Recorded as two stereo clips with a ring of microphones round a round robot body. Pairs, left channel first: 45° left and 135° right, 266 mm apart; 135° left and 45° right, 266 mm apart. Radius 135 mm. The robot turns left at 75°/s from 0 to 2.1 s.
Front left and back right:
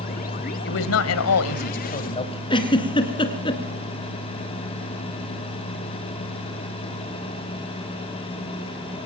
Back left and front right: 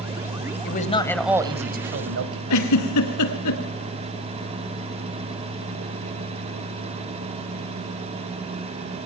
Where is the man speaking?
90° left, 1.8 m; by 2.4 s 20° right, 1.8 m.